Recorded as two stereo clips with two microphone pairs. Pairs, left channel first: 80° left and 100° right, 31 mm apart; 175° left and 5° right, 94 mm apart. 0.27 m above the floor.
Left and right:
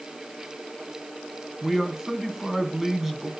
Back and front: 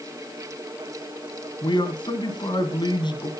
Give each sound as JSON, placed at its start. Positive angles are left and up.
{"t": 1.6, "sound": "a man speaking", "azimuth_deg": -170, "distance_m": 2.5}